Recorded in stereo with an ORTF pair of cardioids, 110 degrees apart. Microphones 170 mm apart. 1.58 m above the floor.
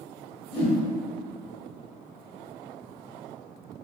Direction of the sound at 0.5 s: 35° left.